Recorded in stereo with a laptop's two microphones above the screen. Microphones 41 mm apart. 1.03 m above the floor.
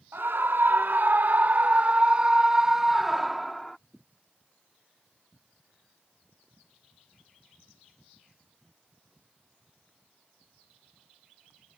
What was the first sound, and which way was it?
A scream, 75° right (ahead or behind).